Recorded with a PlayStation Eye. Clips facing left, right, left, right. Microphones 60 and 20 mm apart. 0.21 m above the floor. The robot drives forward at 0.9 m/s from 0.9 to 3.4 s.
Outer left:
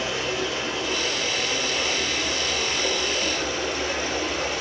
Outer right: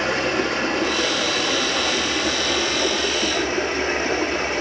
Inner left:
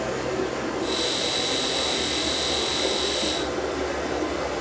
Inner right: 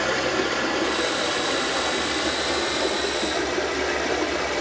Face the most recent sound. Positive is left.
turn(degrees=-45)  # may be behind; listen again after turning